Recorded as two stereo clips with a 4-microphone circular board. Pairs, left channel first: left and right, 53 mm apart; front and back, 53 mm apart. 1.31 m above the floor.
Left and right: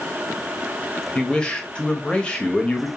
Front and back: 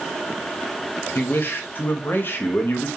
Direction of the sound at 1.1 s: 20° left.